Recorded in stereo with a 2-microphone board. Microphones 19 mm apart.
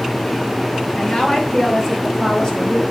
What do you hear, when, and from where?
1.0 s a woman speaking: 45° left (ahead or behind), 3.5 m; by 2.8 s 35° left (ahead or behind), 4.5 m